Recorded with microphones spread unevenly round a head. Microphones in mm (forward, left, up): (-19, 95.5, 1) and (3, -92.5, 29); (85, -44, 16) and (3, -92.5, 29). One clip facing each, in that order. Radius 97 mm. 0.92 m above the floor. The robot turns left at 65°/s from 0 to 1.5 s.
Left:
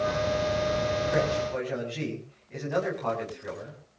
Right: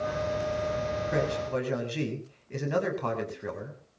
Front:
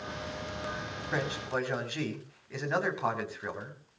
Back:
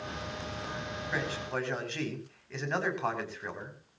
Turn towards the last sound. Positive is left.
turn(degrees=-50)